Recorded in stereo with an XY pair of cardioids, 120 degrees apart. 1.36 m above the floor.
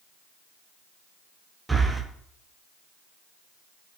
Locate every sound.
1.7 s breathing: 10° right, 0.6 m